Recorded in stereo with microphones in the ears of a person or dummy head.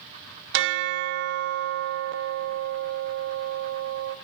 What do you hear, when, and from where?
0.5 s a bell: 60° right (ahead or behind), 0.7 m